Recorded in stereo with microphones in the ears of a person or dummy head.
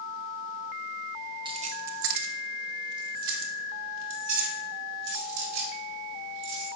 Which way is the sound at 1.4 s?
20° right (ahead or behind).